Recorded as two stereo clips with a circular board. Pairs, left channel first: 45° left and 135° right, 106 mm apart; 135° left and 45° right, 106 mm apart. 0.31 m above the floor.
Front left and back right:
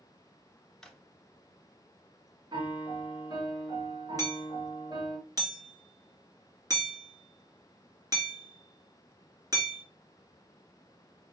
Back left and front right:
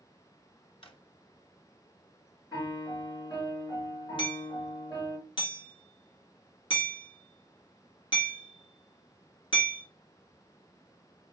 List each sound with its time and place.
0.8 s a drawer: 130° left, 0.9 m
2.5 s a piano: straight behind, 3 m
4.2 s hammering: 170° left, 2 m